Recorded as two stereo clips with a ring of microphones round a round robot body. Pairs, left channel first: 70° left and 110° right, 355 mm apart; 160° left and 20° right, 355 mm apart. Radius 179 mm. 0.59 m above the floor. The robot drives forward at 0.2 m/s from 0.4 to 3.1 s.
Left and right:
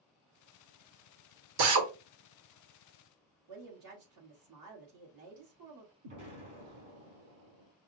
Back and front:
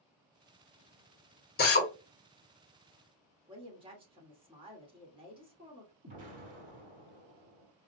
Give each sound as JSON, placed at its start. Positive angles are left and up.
{"t": 1.6, "sound": "a drill", "azimuth_deg": -135, "distance_m": 1.1}
{"t": 3.5, "sound": "a woman speaking", "azimuth_deg": -95, "distance_m": 1.8}
{"t": 6.0, "sound": "an explosion", "azimuth_deg": -90, "distance_m": 2.5}